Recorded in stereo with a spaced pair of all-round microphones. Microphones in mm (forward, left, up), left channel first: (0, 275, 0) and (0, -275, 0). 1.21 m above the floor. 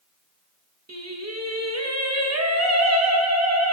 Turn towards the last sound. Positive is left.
turn(degrees=-30)  # may be behind; listen again after turning